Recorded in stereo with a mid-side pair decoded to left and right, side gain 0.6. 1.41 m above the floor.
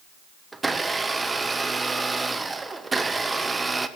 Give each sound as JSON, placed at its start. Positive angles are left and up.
{"t": 0.5, "sound": "a blender", "azimuth_deg": -15, "distance_m": 1.0}